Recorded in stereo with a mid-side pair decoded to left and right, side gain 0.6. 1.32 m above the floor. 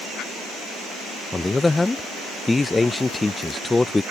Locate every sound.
1.3 s a man speaking: 15° left